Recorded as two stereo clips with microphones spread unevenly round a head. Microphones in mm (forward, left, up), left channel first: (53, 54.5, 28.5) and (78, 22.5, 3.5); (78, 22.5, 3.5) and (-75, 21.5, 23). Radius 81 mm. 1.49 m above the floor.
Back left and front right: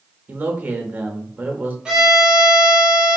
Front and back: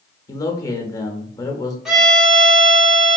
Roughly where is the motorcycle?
No motorcycle in this recording.